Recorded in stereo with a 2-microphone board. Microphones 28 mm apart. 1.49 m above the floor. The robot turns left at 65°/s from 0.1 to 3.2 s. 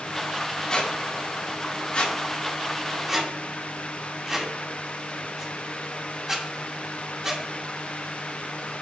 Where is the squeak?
30° left (ahead or behind), 1.1 m; by 7.4 s 20° right (ahead or behind), 1.1 m.